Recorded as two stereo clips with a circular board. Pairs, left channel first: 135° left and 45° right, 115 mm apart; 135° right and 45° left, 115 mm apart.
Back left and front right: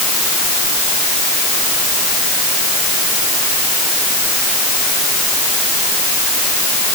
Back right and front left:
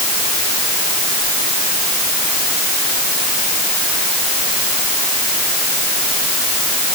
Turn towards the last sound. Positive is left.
No sound to turn to.